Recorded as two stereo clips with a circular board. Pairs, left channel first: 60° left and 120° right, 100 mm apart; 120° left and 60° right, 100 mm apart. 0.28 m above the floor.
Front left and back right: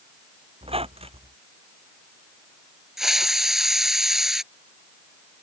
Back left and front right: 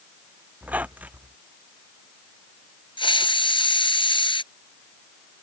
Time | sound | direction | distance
0.6 | a squeak | 135° right | ?
3.0 | a hiss | 150° left | ?